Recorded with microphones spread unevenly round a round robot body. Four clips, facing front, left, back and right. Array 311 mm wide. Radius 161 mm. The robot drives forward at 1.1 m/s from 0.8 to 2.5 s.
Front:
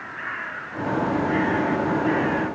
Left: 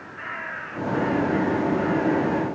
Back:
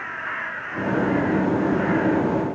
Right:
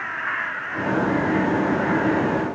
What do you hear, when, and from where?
Only background noise.